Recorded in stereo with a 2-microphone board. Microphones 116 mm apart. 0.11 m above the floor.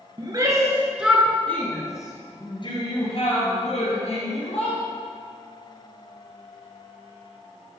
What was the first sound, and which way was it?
A shout, 35° right (ahead or behind).